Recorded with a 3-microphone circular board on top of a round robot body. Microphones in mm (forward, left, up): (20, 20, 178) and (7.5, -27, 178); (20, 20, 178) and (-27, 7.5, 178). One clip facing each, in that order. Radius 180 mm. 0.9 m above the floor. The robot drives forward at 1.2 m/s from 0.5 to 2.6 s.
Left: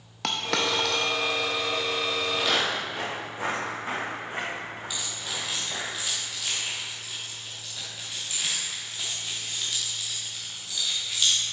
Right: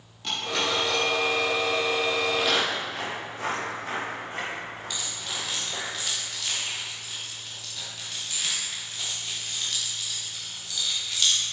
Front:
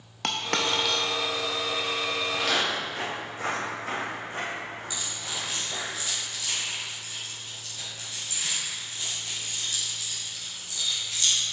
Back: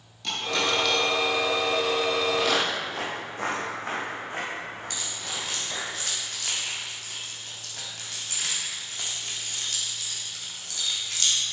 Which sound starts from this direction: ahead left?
A dropped coin, at 0.2 s.